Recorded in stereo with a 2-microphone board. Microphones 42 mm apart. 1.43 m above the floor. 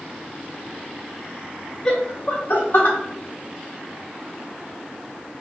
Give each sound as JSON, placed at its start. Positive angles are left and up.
{"t": 1.9, "sound": "laughter", "side_deg": 10, "distance_m": 0.9}